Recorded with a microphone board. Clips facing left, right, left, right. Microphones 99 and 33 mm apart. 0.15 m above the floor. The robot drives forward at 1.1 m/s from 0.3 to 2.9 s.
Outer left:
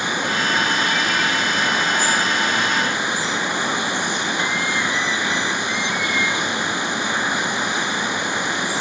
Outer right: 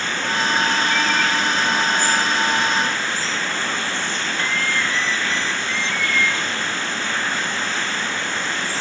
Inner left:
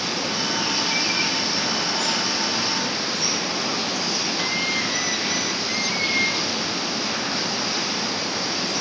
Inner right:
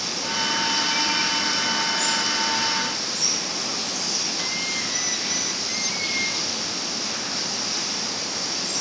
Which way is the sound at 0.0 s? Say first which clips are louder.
Outer left 1 dB, inner left 1 dB; 15° left (ahead or behind).